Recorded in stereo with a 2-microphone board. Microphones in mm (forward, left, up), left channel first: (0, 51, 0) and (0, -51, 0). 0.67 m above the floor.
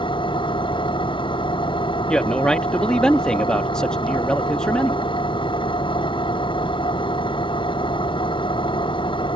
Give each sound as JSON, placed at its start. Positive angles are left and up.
{"t": 0.0, "sound": "an engine running", "side_deg": 50}
{"t": 2.1, "sound": "a man speaking", "side_deg": 10}